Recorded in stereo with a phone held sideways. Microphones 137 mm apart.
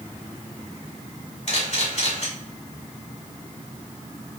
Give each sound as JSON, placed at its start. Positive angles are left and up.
{"t": 1.5, "sound": "a camera shutter", "side_deg": 55, "distance_m": 2.0}